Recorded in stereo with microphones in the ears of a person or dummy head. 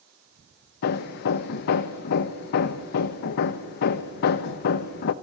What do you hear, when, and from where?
0.8 s hammering: 50° left (ahead or behind), 0.9 m